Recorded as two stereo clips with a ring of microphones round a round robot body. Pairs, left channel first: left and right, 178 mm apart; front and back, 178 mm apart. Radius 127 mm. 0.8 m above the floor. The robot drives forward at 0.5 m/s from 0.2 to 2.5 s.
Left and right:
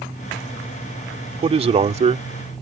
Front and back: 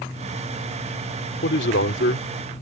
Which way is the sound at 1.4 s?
35° right.